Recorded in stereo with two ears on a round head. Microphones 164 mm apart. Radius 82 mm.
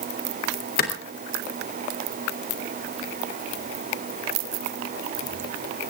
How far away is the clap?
About 3 m.